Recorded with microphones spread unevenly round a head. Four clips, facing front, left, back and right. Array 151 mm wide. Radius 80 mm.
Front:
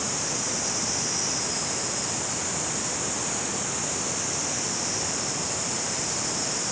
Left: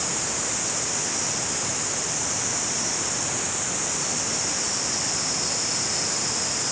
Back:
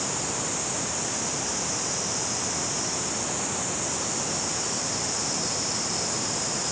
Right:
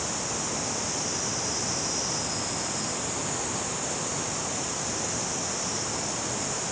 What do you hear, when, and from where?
Only background noise.